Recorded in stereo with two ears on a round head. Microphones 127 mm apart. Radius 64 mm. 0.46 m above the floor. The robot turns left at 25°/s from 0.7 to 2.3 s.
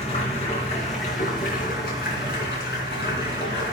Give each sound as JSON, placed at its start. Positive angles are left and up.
{"t": 0.0, "sound": "running water", "azimuth_deg": 130, "distance_m": 3.5}